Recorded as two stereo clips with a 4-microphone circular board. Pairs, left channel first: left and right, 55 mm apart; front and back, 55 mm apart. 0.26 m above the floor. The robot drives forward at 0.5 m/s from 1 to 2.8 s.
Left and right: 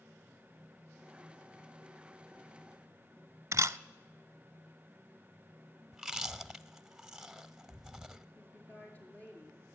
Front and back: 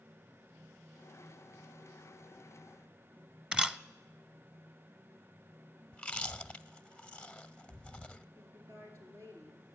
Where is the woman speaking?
150° left, 5.5 m.